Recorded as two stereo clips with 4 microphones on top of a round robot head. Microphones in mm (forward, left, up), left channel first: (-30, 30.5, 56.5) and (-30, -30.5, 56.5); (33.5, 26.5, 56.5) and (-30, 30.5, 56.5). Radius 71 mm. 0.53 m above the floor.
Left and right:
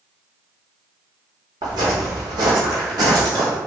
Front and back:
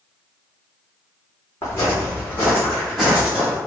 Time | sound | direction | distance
1.6 | footsteps | 60° right | 1.6 m